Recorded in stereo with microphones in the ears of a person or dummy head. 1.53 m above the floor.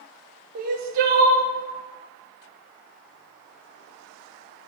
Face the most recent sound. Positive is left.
turn(degrees=-50)  # may be behind; listen again after turning